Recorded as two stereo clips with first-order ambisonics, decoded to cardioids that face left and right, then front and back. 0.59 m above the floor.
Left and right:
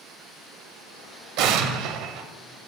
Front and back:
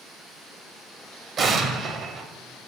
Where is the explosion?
115° right, 0.6 m.